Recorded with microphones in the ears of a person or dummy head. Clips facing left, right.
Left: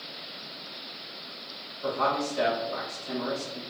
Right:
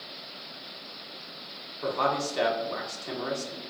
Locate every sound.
1.8 s a man speaking: 85° right, 1.5 m